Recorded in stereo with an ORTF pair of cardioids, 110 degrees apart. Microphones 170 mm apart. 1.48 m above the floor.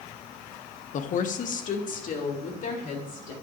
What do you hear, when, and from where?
0.9 s a woman speaking: 50° left, 0.8 m